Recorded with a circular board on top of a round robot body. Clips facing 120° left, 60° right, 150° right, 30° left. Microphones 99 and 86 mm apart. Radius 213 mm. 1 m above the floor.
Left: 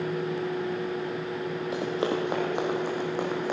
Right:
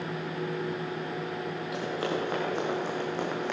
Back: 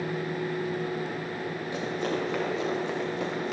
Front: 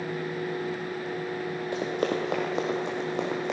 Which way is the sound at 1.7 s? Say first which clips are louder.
Left 3 dB, front 3 dB; 65° left.